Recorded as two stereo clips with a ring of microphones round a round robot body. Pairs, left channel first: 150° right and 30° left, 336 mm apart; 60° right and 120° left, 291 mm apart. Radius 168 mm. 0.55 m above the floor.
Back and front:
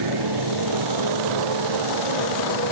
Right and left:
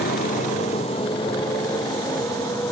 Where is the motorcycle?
5° right; by 2.7 s 20° left.